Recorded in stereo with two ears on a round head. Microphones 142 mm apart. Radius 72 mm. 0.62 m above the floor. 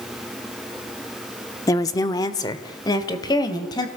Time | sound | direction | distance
1.7 | a woman speaking | 20° left (ahead or behind) | 1.0 m